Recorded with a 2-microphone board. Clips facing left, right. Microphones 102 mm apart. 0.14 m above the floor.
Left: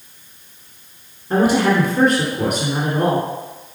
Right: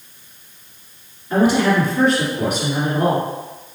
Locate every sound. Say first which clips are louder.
1.3 s a woman speaking: even; 45° left (ahead or behind), 1.6 m